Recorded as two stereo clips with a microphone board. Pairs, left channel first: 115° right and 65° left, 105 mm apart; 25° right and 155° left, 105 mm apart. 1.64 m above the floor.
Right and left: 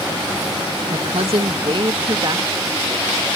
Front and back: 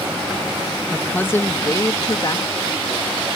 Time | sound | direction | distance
0.9 | a woman speaking | 55° left | ?